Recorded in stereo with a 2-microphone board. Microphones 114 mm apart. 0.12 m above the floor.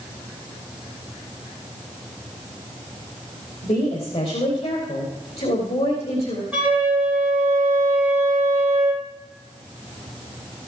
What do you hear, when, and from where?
3.6 s a woman speaking: 70° left (ahead or behind), 4 m
6.5 s a flute: 10° right (ahead or behind), 3 m